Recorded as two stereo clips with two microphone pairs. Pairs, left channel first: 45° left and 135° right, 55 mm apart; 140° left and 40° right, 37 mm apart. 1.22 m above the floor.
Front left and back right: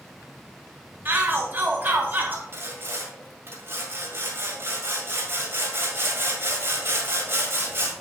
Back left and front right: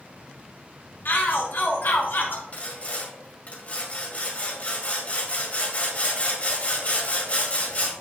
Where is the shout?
175° left, 1.2 m.